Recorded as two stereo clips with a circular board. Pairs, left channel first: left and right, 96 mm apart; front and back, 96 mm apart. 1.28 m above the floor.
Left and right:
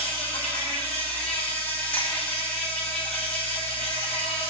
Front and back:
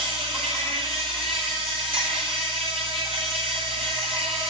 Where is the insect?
165° left, 8.5 m.